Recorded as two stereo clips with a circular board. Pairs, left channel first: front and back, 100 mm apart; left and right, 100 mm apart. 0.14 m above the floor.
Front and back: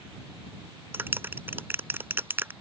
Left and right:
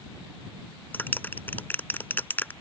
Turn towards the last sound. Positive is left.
turn(degrees=140)